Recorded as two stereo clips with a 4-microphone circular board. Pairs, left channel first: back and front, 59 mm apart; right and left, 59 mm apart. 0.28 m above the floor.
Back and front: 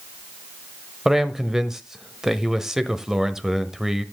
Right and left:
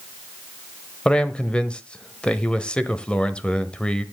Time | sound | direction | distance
1.1 | a man speaking | 60° right | 1.1 m